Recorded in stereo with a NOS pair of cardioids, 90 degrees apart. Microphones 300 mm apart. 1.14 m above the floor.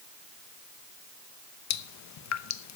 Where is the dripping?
65° left, 0.9 m.